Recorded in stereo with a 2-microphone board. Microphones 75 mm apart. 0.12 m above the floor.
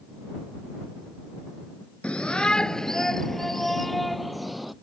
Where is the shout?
15° left (ahead or behind); by 4.7 s centre (ahead or behind).